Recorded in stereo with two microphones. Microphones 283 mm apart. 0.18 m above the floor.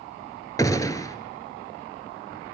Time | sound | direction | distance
0.6 | a gunshot | 15° left (ahead or behind) | 0.9 m